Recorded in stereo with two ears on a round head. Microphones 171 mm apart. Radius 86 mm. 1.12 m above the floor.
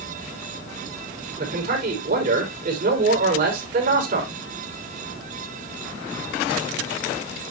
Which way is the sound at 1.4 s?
45° right (ahead or behind).